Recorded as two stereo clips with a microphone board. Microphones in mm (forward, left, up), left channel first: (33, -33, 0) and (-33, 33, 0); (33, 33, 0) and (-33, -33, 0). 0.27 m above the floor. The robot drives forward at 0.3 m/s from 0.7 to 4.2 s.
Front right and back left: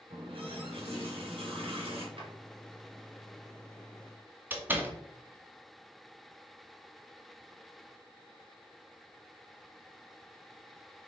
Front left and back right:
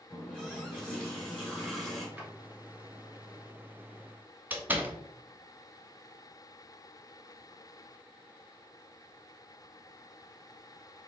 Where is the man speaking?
I don't hear a man speaking.